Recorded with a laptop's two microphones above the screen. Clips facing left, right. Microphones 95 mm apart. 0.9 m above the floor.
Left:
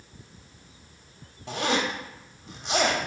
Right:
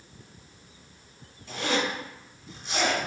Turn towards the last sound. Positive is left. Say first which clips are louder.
# left 1 dB
turn(degrees=70)  # may be behind; listen again after turning